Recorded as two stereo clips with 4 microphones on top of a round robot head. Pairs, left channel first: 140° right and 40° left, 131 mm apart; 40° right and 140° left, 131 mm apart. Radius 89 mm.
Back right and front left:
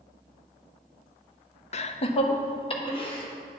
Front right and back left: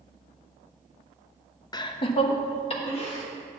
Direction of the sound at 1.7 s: 100° right.